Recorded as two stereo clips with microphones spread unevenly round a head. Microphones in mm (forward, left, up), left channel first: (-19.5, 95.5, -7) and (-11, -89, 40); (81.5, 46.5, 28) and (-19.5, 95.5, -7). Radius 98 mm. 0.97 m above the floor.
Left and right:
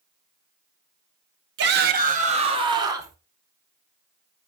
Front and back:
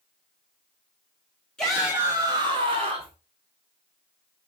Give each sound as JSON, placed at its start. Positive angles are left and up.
{"t": 1.6, "sound": "a shout", "azimuth_deg": -120, "distance_m": 2.0}